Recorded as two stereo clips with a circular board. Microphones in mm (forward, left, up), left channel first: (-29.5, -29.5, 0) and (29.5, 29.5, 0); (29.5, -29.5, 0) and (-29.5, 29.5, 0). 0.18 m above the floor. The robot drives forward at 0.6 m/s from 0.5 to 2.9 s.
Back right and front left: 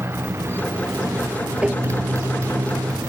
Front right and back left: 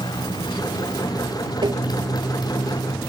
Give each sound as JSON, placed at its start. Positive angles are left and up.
{"t": 0.0, "sound": "a motorcycle", "azimuth_deg": -15}
{"t": 1.6, "sound": "tapping", "azimuth_deg": 120}